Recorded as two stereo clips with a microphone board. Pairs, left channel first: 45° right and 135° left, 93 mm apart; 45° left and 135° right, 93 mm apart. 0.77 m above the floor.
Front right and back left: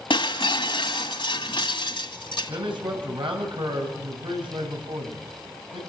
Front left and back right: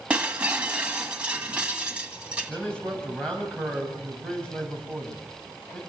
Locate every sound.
0.1 s breaking glass: 55° right, 1.7 m
2.5 s a man speaking: 125° left, 6 m